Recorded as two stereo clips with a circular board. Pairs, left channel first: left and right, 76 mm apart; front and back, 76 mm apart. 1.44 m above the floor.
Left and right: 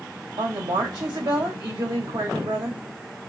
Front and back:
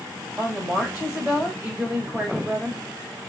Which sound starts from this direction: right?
A woman speaking, at 0.4 s.